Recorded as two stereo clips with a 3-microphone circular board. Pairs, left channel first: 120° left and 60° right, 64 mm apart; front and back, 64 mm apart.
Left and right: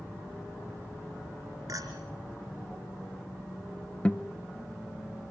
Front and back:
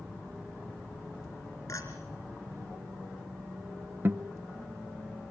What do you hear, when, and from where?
1.7 s a clink: 35° right, 3.5 m
4.0 s a guitar: straight behind, 0.8 m